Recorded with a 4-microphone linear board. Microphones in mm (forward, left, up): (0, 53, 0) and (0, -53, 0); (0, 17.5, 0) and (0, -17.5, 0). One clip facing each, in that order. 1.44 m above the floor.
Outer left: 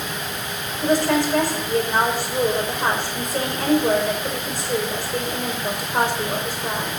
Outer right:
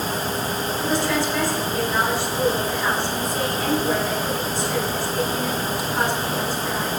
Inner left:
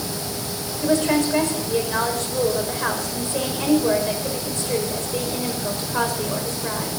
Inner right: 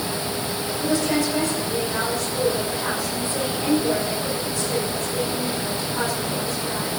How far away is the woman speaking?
About 6 m.